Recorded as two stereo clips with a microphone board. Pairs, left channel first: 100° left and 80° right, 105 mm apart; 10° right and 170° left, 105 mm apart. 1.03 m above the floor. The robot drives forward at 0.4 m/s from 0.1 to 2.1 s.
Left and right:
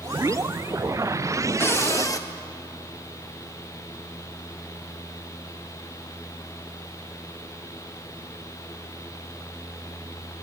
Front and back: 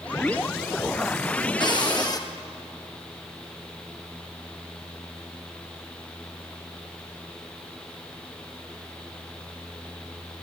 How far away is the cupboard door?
About 0.8 m.